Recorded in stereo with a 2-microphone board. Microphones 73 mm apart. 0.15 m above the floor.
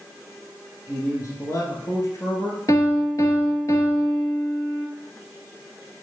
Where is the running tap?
No running tap in this recording.